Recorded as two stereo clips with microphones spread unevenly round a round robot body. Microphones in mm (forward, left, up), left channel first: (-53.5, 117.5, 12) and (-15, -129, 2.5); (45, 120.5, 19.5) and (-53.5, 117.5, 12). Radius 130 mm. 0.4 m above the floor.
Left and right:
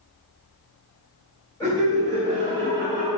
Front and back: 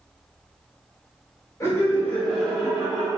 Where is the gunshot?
No gunshot in this recording.